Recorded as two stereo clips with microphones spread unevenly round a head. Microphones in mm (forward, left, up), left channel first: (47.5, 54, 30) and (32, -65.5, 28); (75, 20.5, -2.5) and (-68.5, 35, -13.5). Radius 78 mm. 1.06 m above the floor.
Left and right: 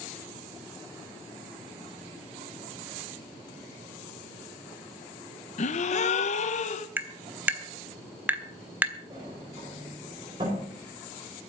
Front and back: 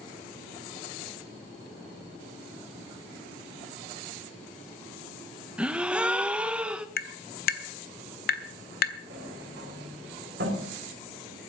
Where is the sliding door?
160° right, 5 m.